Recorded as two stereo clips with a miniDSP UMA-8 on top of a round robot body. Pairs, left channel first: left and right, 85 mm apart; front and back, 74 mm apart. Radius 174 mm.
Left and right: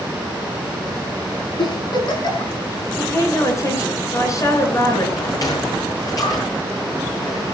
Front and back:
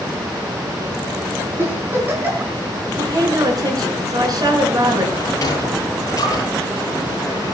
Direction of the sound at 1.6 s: 120° left.